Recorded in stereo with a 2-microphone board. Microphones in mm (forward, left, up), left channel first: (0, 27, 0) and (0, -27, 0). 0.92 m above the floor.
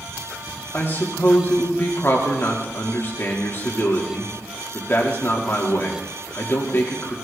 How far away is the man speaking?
About 2 m.